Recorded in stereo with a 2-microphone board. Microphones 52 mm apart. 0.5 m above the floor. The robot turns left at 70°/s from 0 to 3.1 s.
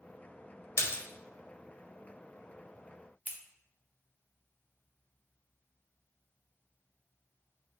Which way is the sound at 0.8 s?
60° left (ahead or behind).